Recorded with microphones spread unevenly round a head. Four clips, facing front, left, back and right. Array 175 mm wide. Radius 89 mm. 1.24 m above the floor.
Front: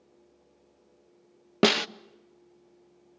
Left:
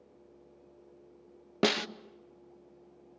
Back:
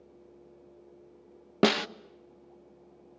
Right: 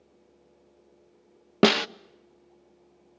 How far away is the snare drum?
About 0.7 m.